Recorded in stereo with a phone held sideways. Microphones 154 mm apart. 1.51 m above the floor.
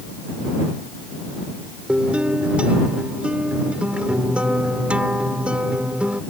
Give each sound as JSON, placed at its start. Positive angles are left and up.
{"t": 1.9, "sound": "a guitar", "side_deg": -5}